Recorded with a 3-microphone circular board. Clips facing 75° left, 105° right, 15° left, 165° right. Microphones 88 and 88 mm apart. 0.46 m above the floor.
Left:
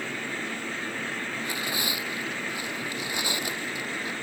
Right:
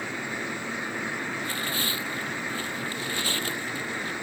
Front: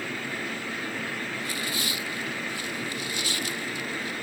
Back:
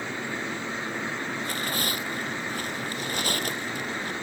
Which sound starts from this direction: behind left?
Tearing paper, at 1.4 s.